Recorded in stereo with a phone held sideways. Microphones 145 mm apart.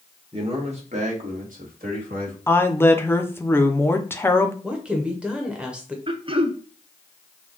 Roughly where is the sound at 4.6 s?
Centre.